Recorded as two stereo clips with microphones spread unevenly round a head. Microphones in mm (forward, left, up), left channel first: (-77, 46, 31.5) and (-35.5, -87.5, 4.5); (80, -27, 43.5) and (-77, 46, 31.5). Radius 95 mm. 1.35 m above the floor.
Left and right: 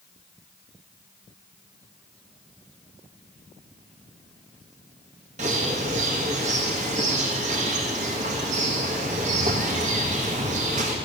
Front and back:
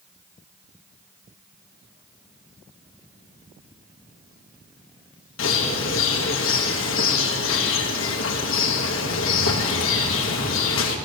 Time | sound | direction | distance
5.4 | a bird | 15° right | 1.3 m